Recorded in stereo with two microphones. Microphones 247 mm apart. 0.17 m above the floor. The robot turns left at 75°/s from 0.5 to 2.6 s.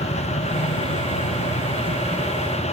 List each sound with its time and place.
0.0 s a helicopter: 140° left; by 2.7 s 15° right